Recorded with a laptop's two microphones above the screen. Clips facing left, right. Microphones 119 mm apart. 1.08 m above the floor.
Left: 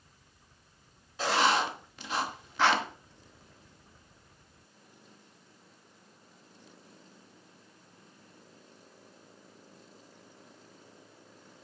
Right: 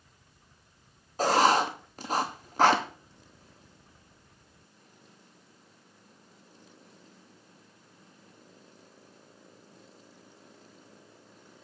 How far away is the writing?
About 1.1 m.